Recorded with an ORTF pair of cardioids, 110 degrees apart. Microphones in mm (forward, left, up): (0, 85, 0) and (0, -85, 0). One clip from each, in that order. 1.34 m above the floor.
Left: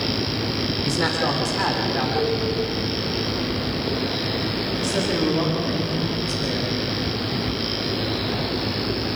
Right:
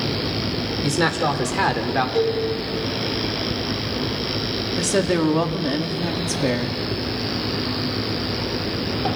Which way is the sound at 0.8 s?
30° right.